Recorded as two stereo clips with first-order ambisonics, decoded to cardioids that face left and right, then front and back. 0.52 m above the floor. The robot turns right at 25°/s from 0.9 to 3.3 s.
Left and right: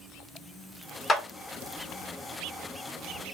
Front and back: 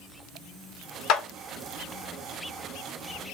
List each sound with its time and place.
1.1 s a clap: 15° left, 1.1 m; by 1.2 s 20° left, 1.1 m